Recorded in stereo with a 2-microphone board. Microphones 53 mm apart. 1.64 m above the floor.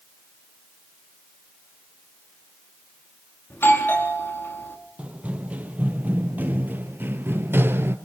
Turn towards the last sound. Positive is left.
turn(degrees=-45)  # may be behind; listen again after turning